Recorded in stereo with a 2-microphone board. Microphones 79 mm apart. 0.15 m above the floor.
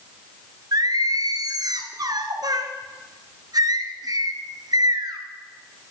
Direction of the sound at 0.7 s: 60° right (ahead or behind).